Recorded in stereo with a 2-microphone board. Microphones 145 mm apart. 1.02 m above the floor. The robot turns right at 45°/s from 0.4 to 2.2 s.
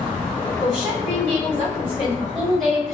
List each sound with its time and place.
0.6 s a woman speaking: 70° right, 2.0 m; by 3.0 s straight ahead, 2.0 m